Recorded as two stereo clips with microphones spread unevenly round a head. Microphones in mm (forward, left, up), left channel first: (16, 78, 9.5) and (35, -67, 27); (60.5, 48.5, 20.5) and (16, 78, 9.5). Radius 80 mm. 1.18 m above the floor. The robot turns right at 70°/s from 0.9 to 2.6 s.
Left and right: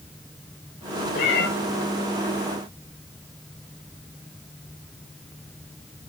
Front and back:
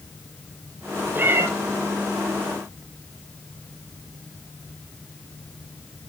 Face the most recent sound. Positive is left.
turn(degrees=-170)